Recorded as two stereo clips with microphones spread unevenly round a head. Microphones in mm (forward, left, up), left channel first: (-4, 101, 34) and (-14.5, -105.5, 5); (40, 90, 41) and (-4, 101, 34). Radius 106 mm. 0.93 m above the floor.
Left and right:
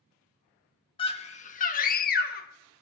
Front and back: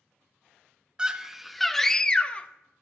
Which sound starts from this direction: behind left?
A scream, at 1.0 s.